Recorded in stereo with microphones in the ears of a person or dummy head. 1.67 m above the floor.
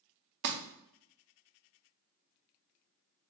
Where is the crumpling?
55° right (ahead or behind), 0.5 m.